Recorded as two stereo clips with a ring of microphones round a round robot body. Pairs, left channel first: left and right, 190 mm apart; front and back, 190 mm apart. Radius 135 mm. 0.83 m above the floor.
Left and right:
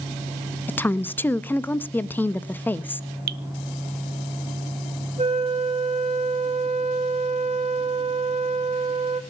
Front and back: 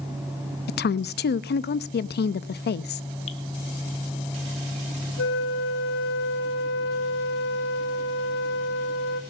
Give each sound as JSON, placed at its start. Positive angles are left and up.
{"t": 0.7, "sound": "a woman speaking", "azimuth_deg": 10, "distance_m": 0.8}
{"t": 3.3, "sound": "dripping", "azimuth_deg": -65, "distance_m": 0.7}
{"t": 5.2, "sound": "a flute", "azimuth_deg": -30, "distance_m": 1.8}